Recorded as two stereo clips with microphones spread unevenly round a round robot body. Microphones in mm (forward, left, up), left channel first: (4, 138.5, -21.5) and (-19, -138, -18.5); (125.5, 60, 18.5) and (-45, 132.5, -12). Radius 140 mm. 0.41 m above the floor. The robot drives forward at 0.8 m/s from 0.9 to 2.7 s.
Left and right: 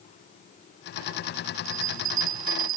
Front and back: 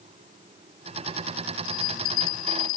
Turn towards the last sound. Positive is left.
turn(degrees=-65)